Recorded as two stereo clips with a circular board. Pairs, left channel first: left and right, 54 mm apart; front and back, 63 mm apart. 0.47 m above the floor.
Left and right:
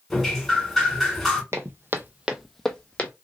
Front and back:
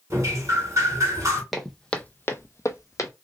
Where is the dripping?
Straight behind, 1.6 m.